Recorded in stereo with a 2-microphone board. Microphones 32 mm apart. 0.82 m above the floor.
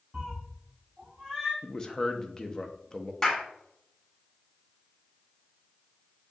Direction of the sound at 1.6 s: 20° left (ahead or behind).